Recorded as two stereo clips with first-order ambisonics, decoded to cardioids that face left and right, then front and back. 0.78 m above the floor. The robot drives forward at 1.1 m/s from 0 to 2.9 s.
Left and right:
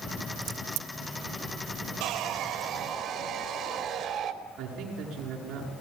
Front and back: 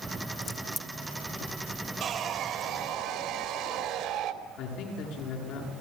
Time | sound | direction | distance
0.4 | a crack | 65° right | 1.3 m
2.0 | sawing | 120° right | 2 m
4.6 | a man speaking | 40° right | 8 m